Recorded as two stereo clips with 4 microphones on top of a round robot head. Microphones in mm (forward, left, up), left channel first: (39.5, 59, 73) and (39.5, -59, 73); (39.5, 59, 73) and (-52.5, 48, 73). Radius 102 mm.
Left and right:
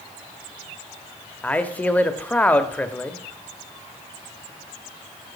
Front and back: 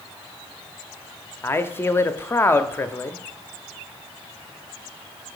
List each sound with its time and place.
1.4 s a man speaking: 30° left, 1.0 m